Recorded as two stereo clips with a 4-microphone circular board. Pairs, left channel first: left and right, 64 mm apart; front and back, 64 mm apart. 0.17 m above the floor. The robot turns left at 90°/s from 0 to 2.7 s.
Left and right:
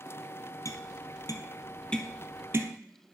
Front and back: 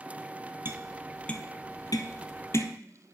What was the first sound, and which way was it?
Tapping, 130° left.